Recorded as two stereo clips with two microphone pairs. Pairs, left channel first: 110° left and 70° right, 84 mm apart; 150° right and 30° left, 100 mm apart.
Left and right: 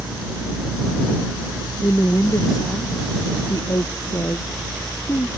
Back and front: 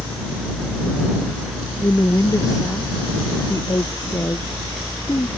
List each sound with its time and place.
1.8 s a woman speaking: 155° left